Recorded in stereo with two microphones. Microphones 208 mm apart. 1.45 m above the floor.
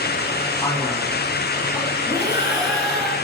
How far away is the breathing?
About 6 m.